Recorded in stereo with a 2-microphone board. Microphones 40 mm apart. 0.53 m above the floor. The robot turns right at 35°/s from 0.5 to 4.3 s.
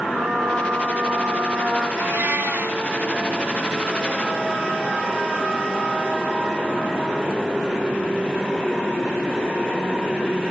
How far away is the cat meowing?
About 2.0 m.